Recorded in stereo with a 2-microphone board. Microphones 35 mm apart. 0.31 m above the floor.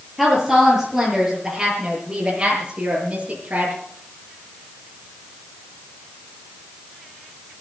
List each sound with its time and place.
0.2 s a woman speaking: 10° right (ahead or behind), 7 m; by 3.8 s 45° right (ahead or behind), 6 m